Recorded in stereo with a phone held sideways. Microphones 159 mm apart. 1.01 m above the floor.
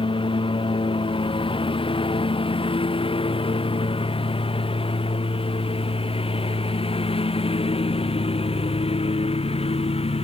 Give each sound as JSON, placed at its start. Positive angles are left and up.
{"t": 0.0, "sound": "a lawn mower", "side_deg": 30}